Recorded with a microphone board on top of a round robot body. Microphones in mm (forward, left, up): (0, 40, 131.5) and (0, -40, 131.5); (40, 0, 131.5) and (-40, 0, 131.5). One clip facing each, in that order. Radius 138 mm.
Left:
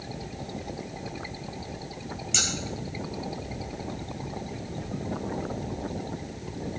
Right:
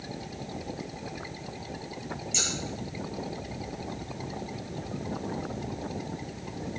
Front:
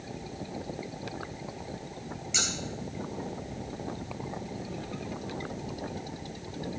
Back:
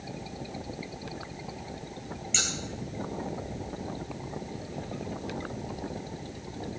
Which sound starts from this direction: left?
Scissors, at 2.3 s.